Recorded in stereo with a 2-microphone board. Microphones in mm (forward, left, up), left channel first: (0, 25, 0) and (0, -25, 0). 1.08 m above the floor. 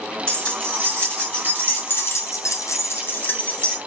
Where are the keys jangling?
20° left (ahead or behind), 1.9 m; by 3.8 s 25° left (ahead or behind), 1.1 m.